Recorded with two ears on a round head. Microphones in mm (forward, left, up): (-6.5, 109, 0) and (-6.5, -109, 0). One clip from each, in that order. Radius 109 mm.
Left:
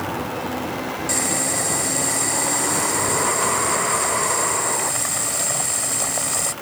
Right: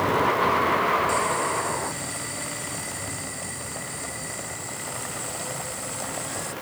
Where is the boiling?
30° left (ahead or behind).